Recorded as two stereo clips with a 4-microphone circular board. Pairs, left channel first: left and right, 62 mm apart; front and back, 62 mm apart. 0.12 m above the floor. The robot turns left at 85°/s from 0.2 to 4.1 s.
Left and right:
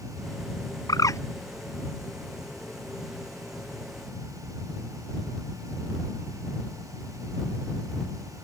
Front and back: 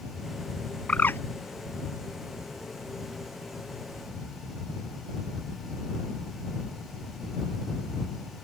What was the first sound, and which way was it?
A bird, 80° left.